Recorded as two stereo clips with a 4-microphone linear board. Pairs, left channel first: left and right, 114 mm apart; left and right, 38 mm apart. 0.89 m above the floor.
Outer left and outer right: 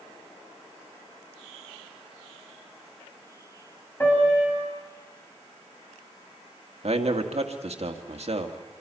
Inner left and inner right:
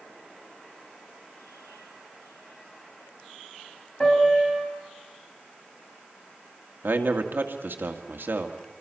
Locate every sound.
4.0 s a piano: 15° left (ahead or behind), 6.5 m
6.8 s a man speaking: 65° right (ahead or behind), 1.9 m